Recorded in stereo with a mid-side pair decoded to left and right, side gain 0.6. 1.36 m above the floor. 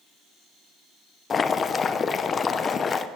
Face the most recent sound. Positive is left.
turn(degrees=35)